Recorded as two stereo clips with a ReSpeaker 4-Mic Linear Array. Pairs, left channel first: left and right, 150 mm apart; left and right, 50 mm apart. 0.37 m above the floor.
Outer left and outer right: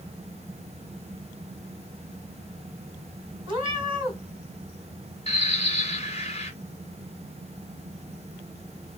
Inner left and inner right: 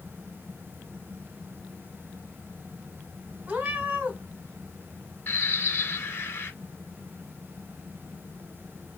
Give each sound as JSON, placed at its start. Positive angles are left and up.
{"t": 3.5, "sound": "a cat meowing", "side_deg": -35, "distance_m": 1.5}
{"t": 5.3, "sound": "a bird", "side_deg": 40, "distance_m": 1.4}